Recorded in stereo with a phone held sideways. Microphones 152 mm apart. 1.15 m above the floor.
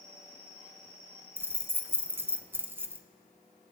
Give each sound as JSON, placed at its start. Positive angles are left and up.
{"t": 1.4, "sound": "keys jangling", "side_deg": -15, "distance_m": 0.5}